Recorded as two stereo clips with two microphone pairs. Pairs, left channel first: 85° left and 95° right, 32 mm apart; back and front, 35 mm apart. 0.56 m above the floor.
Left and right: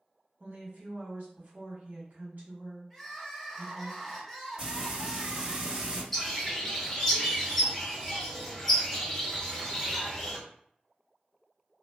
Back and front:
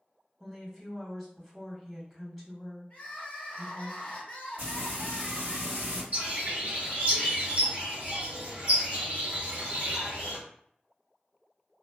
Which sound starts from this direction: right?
A woman speaking, at 0.4 s.